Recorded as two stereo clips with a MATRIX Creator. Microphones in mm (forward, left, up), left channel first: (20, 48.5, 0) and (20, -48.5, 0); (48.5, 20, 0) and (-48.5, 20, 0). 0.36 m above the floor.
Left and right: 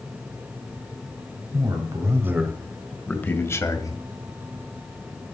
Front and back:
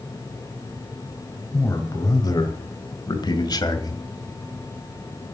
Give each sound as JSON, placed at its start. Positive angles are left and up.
{"t": 1.5, "sound": "a man speaking", "azimuth_deg": -55, "distance_m": 1.9}